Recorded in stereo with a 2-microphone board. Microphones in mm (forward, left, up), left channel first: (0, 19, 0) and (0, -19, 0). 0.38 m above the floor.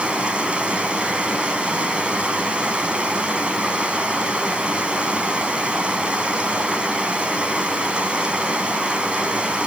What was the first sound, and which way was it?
Running water, 30° right (ahead or behind).